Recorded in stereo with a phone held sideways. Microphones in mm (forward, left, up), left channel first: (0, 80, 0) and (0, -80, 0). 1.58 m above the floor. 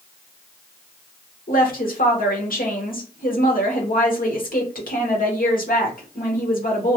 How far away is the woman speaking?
About 0.9 m.